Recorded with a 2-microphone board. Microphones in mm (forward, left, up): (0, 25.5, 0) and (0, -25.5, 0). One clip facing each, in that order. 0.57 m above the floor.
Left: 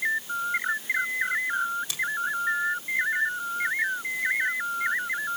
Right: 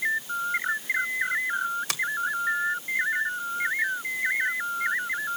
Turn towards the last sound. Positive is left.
turn(degrees=-65)  # may be behind; listen again after turning